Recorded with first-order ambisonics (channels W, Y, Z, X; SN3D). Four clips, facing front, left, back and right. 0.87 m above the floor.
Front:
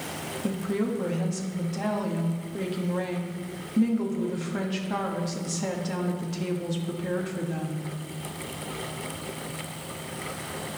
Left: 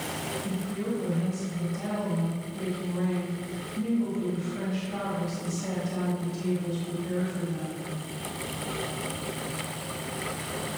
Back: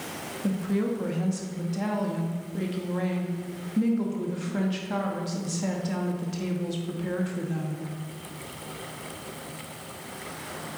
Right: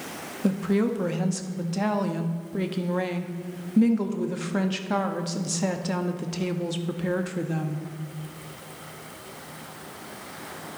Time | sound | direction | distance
0.4 | a woman speaking | 85° right | 0.9 m